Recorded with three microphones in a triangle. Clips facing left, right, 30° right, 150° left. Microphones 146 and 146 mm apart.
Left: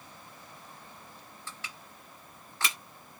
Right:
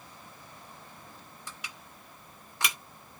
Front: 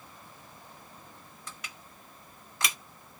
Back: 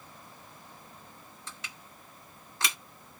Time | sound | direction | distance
1.5 | crushing | 160° right | 2 m